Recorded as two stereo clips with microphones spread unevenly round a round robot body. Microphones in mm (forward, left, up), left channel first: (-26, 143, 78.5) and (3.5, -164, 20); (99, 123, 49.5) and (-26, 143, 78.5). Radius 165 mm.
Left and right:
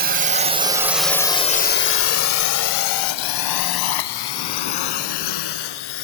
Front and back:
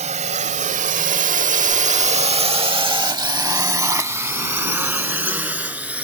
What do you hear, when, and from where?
0.0 s a drone: 140° right; by 6.0 s 95° left